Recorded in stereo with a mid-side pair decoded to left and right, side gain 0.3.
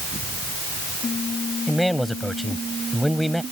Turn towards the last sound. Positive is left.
turn(degrees=0)